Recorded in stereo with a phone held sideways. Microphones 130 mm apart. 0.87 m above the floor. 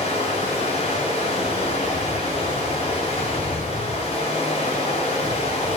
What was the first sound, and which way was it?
Running water, 45° left (ahead or behind).